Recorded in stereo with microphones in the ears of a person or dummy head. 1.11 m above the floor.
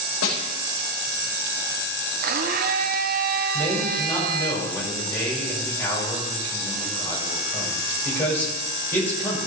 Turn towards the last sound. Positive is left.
turn(degrees=10)  # may be behind; listen again after turning